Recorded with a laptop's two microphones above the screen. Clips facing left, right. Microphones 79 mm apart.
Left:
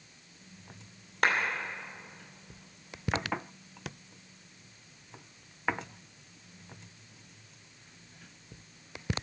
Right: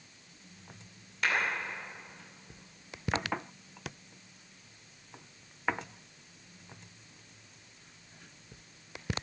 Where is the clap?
55° left (ahead or behind), 2.5 m.